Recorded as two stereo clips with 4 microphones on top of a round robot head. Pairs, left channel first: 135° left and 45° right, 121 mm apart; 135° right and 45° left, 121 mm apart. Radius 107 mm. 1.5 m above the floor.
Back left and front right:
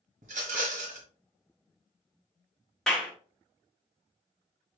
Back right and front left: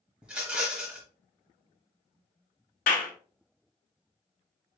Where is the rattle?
40° right, 0.9 m.